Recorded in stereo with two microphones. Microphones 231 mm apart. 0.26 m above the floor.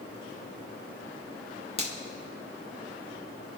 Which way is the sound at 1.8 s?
25° left (ahead or behind).